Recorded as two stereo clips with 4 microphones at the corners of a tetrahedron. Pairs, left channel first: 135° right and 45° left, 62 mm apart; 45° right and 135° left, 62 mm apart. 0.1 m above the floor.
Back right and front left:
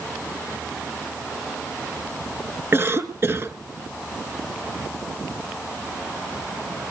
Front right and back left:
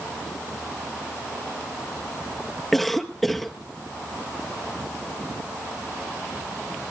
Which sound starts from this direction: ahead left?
A cough, at 2.7 s.